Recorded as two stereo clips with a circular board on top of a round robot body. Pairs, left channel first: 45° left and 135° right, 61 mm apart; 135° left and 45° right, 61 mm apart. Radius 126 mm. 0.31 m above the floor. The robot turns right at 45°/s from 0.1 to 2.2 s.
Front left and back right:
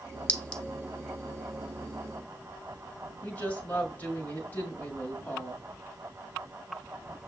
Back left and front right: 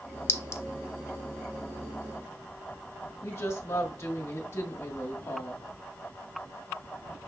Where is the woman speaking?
95° left, 1.2 m.